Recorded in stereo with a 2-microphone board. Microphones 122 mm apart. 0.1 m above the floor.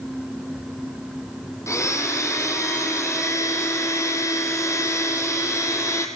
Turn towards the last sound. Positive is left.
turn(degrees=25)  # may be behind; listen again after turning